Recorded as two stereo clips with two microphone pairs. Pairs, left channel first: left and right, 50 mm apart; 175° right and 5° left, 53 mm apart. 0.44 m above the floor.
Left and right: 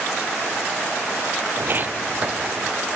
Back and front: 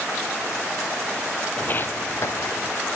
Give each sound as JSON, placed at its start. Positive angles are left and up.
{"t": 1.6, "sound": "footsteps", "azimuth_deg": -120, "distance_m": 0.7}